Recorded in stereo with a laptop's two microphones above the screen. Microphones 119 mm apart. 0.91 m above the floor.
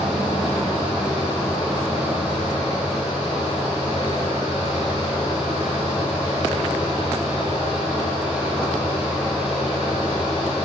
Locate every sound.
0.0 s a fan: 10° right (ahead or behind), 2.5 m